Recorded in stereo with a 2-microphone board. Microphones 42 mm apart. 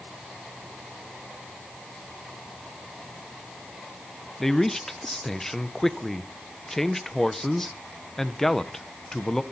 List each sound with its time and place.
4.4 s a man speaking: 10° left (ahead or behind), 0.9 m